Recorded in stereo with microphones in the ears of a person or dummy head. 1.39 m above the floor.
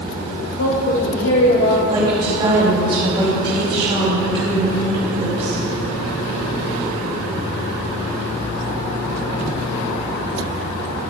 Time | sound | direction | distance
0.6 | a woman speaking | 80° left | 1.8 m
1.9 | a woman speaking | 35° right (ahead or behind) | 5 m